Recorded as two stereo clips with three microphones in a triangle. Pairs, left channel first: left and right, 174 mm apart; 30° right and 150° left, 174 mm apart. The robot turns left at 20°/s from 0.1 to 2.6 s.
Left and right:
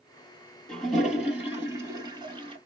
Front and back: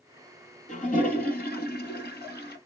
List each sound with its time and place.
0.7 s a toilet flushing: straight ahead, 1.5 m; by 2.6 s 35° right, 1.5 m